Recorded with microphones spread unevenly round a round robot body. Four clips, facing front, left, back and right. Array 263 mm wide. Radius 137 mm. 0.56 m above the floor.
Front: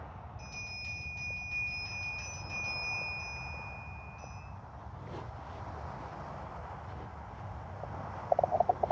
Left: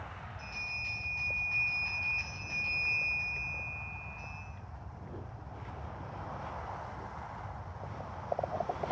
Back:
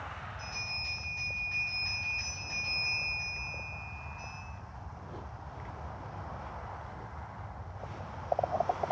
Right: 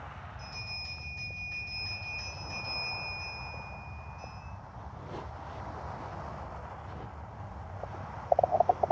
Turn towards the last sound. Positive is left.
turn(degrees=-15)